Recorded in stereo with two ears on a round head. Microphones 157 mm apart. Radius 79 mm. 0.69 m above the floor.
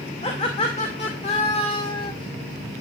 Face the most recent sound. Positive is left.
turn(degrees=25)  # may be behind; listen again after turning